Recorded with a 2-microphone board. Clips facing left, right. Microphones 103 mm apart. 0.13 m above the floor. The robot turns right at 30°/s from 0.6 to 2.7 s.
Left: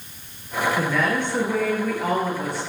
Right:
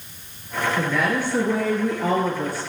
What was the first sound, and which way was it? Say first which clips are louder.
A woman speaking: right 2 dB; straight behind.